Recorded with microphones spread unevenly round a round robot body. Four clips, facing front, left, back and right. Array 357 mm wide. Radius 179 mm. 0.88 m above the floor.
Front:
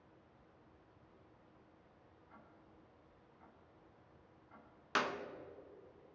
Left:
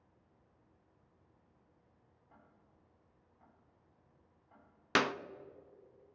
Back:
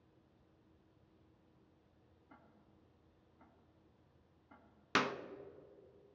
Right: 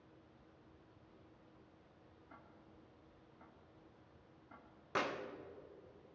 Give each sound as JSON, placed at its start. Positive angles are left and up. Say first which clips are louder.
{"t": 2.3, "sound": "ticking", "louder": "right 4 dB, front 2 dB", "azimuth_deg": -130, "distance_m": 2.0}
{"t": 5.0, "sound": "a clap", "louder": "left 7 dB, back 1 dB", "azimuth_deg": 115, "distance_m": 0.5}